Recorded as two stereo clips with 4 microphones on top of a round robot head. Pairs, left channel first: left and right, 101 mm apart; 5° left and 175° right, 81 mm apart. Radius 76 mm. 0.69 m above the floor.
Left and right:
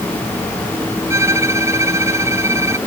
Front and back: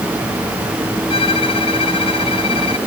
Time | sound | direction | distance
1.1 | a violin | 25° right | ?